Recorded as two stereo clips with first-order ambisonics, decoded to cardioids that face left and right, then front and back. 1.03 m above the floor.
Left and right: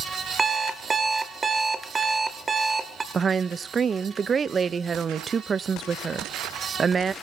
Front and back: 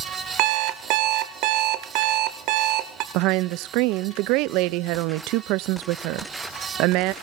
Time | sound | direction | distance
0.4 | an alarm clock | 165° right | 1.5 m
3.1 | a woman speaking | 160° right | 0.6 m